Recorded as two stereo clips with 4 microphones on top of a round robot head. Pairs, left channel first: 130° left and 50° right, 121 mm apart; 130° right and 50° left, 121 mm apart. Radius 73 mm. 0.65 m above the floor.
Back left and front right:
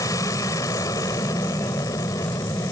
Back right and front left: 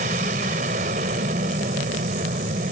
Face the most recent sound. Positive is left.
turn(degrees=65)